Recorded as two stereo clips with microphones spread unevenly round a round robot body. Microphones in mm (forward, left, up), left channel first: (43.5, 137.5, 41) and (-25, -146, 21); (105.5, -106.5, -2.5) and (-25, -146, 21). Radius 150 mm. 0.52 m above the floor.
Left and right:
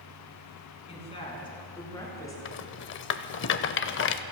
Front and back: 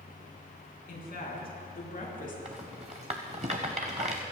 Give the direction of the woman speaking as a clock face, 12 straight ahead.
12 o'clock.